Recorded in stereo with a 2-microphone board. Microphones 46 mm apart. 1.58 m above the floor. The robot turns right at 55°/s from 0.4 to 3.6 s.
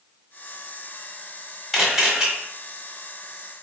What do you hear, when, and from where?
1.7 s a camera shutter: centre (ahead or behind), 1.3 m; by 2.3 s 15° right (ahead or behind), 1.3 m